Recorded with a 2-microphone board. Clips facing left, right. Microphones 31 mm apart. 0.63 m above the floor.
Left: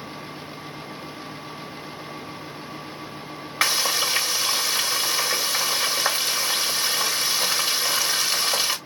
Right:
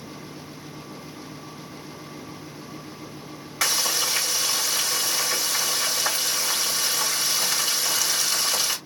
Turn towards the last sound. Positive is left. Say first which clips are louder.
# left 2 dB
turn(degrees=25)  # may be behind; listen again after turning